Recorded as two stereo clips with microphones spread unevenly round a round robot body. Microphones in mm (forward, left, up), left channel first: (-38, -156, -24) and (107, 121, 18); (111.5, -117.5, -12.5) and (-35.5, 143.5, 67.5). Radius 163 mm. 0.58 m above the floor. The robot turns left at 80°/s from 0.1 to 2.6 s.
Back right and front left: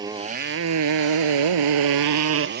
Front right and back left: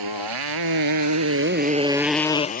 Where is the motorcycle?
140° left; by 2.6 s straight ahead.